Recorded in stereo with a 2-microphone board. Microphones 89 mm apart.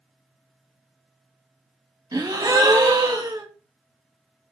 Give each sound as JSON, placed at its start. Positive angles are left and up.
{"t": 2.1, "sound": "a gasp", "side_deg": -40, "distance_m": 0.6}